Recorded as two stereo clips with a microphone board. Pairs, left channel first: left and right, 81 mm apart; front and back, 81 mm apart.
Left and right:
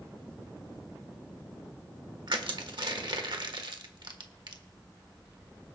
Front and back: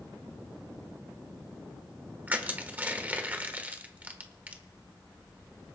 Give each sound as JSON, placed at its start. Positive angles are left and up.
{"t": 2.3, "sound": "crushing", "azimuth_deg": -110, "distance_m": 1.3}